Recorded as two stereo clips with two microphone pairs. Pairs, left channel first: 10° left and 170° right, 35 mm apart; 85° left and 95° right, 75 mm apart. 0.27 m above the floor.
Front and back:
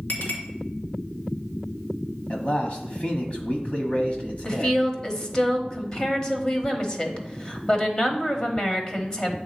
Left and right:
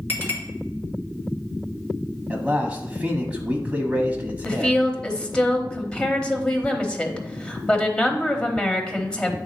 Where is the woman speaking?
30° left, 1.0 m.